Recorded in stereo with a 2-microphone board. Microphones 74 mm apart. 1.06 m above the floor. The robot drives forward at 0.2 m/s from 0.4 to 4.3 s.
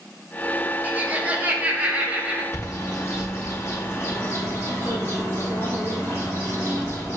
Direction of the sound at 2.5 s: 40° left (ahead or behind).